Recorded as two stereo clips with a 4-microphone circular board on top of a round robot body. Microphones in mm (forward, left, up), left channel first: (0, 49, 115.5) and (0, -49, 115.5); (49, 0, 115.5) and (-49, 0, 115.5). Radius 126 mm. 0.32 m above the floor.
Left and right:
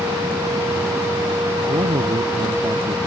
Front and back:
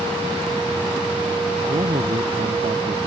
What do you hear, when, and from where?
1.7 s a man speaking: 145° right